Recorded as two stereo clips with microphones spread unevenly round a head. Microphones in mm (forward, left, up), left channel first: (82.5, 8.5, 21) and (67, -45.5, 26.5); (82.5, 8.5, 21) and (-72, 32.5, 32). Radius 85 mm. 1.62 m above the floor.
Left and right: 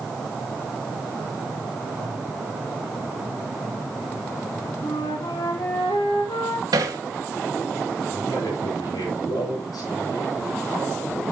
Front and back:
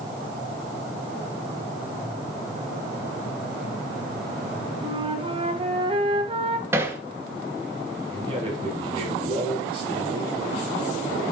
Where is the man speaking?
110° left, 8 m.